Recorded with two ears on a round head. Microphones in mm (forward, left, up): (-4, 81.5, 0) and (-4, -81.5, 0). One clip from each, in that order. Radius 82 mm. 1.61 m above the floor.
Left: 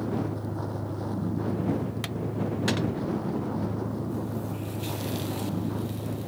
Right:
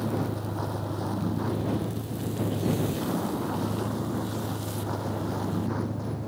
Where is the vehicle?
25° right (ahead or behind); by 6.3 s 50° right (ahead or behind).